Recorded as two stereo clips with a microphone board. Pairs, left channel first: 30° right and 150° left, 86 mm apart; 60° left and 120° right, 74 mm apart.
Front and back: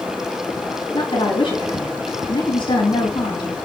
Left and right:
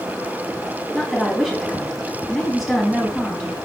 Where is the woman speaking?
30° right, 3.5 m.